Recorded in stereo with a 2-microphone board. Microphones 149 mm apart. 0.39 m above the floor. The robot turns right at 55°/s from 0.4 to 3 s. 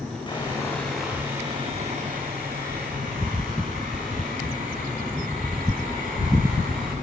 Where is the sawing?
145° left, 8.5 m; by 6.9 s 70° right, 8.5 m.